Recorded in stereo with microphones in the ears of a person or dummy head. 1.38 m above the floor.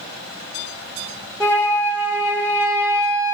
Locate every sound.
1.4 s a flute: 20° left (ahead or behind), 1.5 m